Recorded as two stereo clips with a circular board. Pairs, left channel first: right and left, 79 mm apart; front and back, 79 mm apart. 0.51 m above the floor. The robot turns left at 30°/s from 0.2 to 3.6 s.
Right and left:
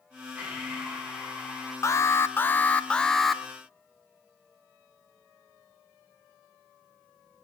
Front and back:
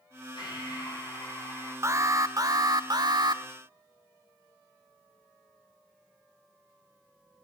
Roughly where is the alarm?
Behind right.